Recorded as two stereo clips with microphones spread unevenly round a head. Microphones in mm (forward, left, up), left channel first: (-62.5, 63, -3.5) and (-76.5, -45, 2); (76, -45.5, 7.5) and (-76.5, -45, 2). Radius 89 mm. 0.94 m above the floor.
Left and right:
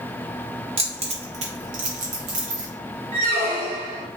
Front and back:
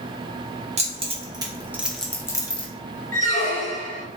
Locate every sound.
0.8 s keys jangling: 130° right, 0.9 m; by 2.7 s 60° right, 0.7 m
3.1 s a squeak: 65° right, 1.7 m